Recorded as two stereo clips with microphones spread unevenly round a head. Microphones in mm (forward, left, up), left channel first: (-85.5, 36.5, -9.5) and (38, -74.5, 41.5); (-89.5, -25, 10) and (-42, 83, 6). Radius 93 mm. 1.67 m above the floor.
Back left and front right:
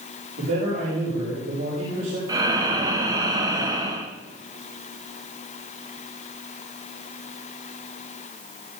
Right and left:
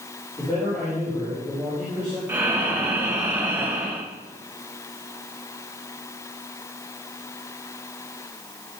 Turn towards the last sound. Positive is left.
turn(degrees=-5)